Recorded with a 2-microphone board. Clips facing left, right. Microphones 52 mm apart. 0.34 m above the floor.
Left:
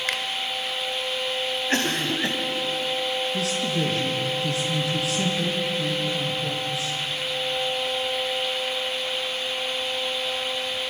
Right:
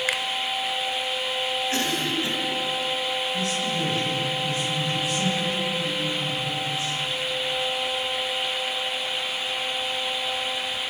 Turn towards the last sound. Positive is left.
turn(degrees=80)